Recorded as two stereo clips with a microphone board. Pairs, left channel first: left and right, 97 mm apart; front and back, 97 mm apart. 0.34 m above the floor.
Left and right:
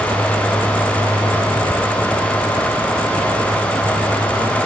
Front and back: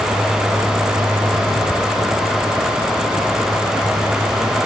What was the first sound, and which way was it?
Only background noise.